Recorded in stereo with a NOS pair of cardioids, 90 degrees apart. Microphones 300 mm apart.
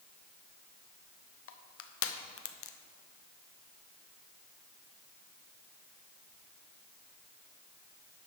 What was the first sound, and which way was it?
Crushing, 50° left.